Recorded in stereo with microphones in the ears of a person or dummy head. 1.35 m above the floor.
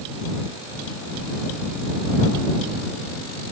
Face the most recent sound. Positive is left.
No sound to turn to.